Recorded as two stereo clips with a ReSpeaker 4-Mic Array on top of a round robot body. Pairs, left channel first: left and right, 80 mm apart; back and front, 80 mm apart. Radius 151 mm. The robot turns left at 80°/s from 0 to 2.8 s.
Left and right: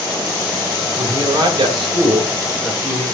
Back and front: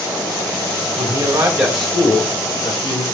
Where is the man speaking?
35° right, 3 m; by 3.0 s straight behind, 3 m.